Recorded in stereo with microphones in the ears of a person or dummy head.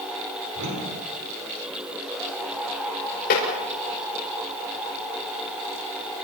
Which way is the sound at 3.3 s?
50° left (ahead or behind).